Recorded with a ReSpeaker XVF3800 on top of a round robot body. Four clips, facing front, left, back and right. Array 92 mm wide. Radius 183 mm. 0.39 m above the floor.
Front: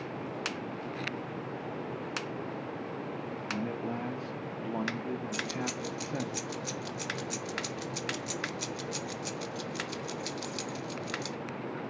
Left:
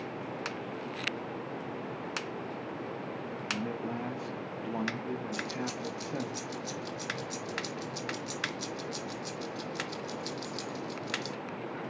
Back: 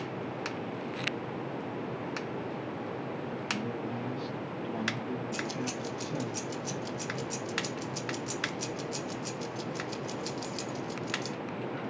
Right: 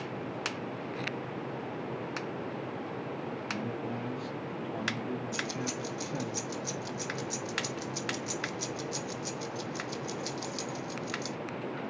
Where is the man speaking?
35° left, 1.2 m.